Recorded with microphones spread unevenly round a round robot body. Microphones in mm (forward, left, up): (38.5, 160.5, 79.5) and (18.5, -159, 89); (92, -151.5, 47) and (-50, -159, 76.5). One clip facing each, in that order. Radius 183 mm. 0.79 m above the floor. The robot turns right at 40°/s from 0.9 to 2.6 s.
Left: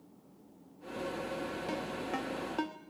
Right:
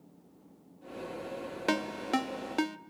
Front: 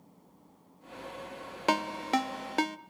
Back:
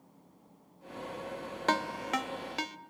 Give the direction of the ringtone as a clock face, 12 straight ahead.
3 o'clock.